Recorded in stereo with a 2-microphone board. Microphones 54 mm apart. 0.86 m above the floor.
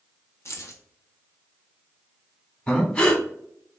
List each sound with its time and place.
0.5 s keys jangling: 60° left (ahead or behind), 0.6 m
2.7 s breathing: 20° left (ahead or behind), 0.7 m